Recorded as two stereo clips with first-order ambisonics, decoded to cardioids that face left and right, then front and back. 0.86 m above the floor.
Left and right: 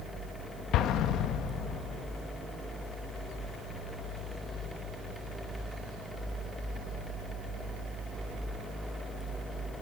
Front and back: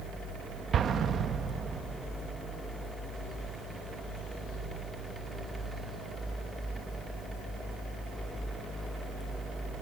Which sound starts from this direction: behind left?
An explosion, at 0.7 s.